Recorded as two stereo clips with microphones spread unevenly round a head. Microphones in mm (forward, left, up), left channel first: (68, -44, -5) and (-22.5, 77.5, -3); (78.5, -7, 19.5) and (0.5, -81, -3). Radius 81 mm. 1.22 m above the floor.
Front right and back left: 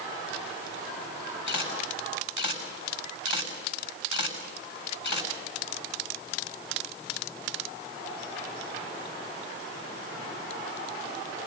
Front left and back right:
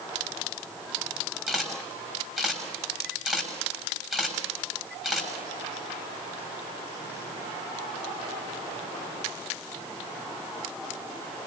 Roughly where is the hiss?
No hiss in this recording.